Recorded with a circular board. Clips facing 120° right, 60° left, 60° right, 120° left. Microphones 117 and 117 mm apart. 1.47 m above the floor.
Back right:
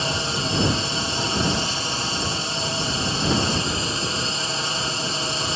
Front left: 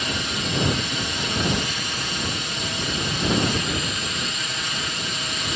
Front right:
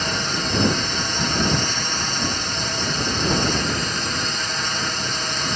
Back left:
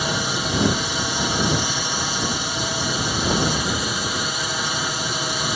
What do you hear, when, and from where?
0.0 s a drone: 165° right